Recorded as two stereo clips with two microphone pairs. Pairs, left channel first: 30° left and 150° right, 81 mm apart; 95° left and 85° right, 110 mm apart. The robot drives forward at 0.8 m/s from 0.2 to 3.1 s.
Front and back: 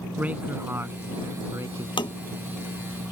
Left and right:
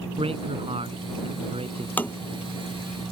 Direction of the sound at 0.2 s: 80° right.